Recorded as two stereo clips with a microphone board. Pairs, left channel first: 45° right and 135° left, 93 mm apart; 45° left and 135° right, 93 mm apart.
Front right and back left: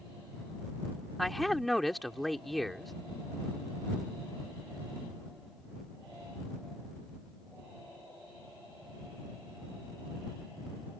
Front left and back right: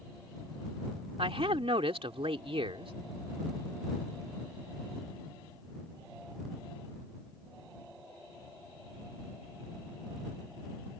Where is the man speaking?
135° right.